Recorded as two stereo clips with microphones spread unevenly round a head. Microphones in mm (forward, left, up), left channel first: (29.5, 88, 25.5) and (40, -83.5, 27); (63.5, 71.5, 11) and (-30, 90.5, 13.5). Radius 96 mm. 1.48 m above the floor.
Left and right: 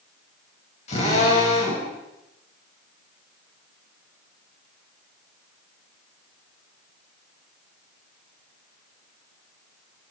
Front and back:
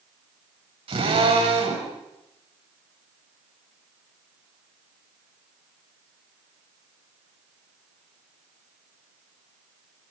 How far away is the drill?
About 8.5 m.